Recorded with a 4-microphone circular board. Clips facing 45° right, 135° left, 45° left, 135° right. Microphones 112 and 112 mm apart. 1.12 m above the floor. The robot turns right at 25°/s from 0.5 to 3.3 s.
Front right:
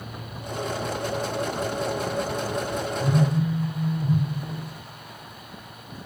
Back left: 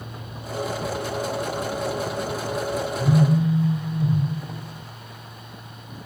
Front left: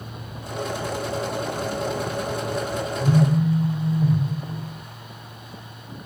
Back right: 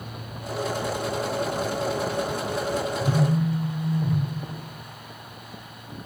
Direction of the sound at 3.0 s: 80° left.